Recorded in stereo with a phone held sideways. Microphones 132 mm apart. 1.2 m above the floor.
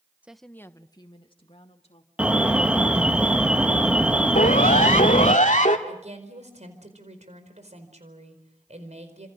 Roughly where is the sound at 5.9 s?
Right.